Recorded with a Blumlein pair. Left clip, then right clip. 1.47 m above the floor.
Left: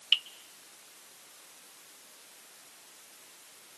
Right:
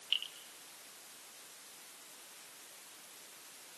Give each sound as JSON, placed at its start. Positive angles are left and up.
{"t": 0.1, "sound": "dripping", "azimuth_deg": 65, "distance_m": 1.1}